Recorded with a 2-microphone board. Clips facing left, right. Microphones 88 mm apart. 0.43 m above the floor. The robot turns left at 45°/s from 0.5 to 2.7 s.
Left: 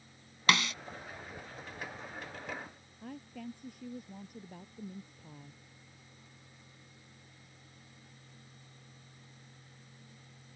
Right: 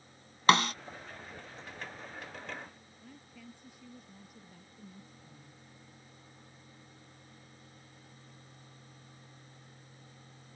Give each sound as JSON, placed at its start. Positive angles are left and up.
{"t": 0.5, "sound": "a snare drum", "side_deg": -35}
{"t": 3.0, "sound": "a woman speaking", "side_deg": 55}